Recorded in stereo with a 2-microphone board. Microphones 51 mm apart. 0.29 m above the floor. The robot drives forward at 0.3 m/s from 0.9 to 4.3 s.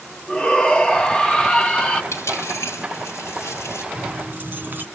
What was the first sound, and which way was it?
A shout, 15° left (ahead or behind).